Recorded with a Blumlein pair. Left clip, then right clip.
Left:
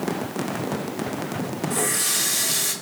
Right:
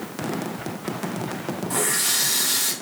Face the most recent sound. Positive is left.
turn(degrees=-65)